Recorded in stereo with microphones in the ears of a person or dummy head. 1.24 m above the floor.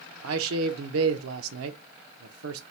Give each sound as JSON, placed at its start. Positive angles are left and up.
{"t": 0.2, "sound": "a man speaking", "side_deg": -80, "distance_m": 0.6}